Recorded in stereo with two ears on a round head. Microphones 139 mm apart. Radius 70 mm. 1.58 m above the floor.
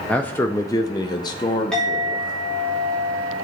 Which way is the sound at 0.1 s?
5° left (ahead or behind).